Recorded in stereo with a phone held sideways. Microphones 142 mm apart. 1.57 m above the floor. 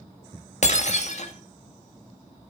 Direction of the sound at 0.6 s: 55° left (ahead or behind).